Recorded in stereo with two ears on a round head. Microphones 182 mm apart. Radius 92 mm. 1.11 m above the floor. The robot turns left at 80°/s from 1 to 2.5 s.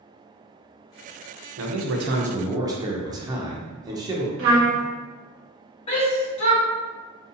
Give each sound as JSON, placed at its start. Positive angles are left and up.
{"t": 1.6, "sound": "a man speaking", "azimuth_deg": -90, "distance_m": 0.6}
{"t": 4.4, "sound": "a trumpet", "side_deg": -65, "distance_m": 0.9}
{"t": 5.9, "sound": "a shout", "side_deg": 30, "distance_m": 1.3}